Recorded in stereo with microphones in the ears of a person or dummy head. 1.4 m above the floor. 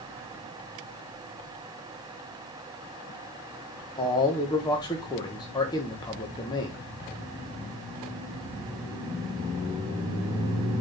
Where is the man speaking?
20° left (ahead or behind), 1.4 m.